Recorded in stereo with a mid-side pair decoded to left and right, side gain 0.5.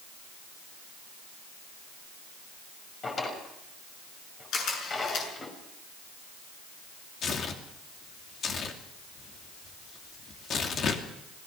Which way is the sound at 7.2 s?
55° left.